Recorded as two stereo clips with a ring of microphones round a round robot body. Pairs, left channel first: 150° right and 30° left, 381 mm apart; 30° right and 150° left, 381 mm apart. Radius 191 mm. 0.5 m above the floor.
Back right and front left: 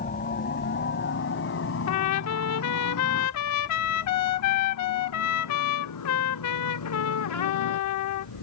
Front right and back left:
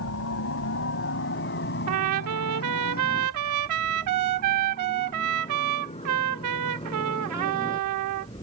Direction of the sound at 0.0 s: 85° right.